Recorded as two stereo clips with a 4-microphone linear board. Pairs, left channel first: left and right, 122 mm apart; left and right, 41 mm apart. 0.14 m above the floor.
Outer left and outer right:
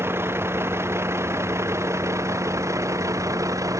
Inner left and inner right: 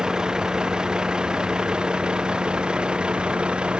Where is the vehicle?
20° right (ahead or behind); by 3.8 s 25° right (ahead or behind).